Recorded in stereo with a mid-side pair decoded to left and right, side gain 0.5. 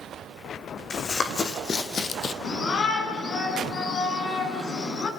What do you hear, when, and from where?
0.9 s running footsteps: 40° left, 4 m; by 2.3 s 50° left, 2.0 m
2.4 s a shout: 50° left, 8 m